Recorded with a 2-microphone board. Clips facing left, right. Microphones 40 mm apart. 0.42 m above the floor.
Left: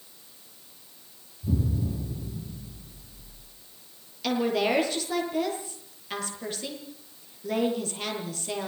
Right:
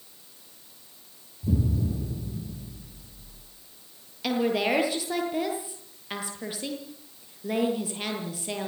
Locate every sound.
1.4 s an explosion: 15° right (ahead or behind), 8 m
4.2 s a woman speaking: 15° right (ahead or behind), 8.5 m